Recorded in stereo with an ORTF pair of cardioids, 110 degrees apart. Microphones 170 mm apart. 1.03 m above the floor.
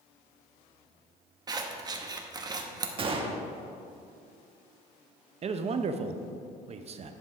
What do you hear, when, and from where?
1.5 s scissors: 25° right, 1.0 m
3.0 s a gunshot: 35° right, 1.2 m
5.4 s a man speaking: 40° right, 0.7 m